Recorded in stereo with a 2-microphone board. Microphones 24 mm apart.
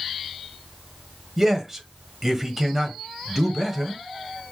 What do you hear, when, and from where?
1.4 s a man speaking: 15° right (ahead or behind), 1.3 m